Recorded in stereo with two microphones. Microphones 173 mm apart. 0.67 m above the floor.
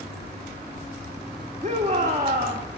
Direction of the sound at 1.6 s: 45° right (ahead or behind).